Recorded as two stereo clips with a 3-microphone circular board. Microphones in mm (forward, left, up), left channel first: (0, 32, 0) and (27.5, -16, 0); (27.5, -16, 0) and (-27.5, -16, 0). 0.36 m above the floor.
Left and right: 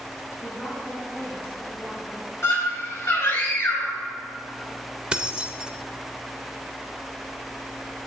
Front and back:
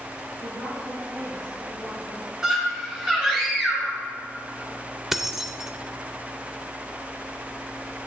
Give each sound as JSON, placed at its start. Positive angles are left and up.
{"t": 0.4, "sound": "a woman speaking", "azimuth_deg": -170, "distance_m": 3.0}
{"t": 2.4, "sound": "a scream", "azimuth_deg": 105, "distance_m": 1.7}
{"t": 5.1, "sound": "keys jangling", "azimuth_deg": -105, "distance_m": 0.5}